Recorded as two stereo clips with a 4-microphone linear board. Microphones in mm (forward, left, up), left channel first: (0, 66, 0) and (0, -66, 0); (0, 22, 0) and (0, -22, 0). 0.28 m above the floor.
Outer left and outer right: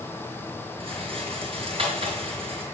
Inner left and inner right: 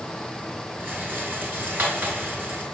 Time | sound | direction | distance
0.8 | a rattle | 45° right (ahead or behind) | 4.5 m